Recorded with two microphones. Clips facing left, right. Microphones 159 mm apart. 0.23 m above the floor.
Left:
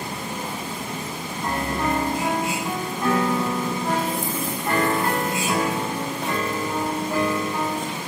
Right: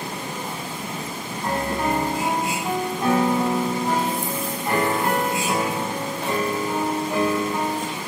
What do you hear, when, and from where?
1.4 s a piano: 20° right (ahead or behind), 0.8 m